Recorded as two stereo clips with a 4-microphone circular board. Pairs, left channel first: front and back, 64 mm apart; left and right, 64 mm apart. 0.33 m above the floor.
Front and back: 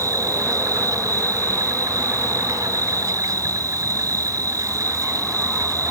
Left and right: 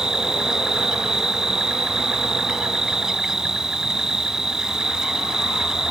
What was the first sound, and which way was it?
An insect, 170° right.